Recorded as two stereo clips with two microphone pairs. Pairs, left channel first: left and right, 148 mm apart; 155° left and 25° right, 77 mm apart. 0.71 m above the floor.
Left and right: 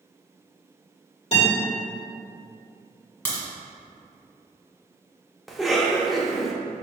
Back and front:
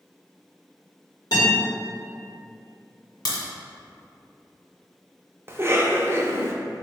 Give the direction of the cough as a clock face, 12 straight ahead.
12 o'clock.